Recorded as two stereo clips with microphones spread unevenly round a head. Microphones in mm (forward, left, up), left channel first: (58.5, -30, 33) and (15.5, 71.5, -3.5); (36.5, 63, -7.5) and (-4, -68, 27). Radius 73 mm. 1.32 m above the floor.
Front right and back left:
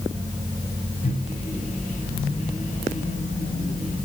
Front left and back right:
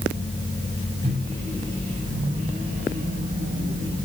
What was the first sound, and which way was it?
A microwave, 60° right.